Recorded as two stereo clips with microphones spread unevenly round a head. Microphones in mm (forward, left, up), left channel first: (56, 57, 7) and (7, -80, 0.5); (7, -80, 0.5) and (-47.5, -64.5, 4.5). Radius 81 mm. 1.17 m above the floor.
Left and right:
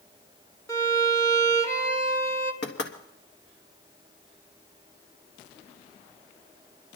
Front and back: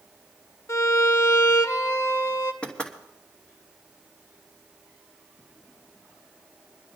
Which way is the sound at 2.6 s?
70° left.